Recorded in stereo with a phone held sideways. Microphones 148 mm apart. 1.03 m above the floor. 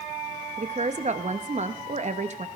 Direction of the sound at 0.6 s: 50° right (ahead or behind).